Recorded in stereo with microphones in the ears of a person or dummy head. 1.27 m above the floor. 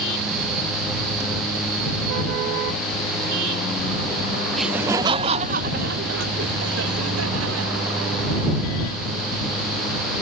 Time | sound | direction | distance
4.5 | laughter | 5° left (ahead or behind) | ?